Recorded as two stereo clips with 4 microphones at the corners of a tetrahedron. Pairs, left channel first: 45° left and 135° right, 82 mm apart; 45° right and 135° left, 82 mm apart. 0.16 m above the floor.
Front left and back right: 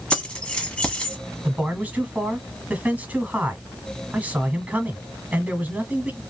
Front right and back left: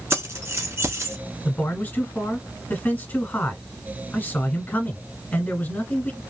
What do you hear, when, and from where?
0.1 s keys jangling: 115° left, 1.1 m
1.4 s a man speaking: 85° right, 1.3 m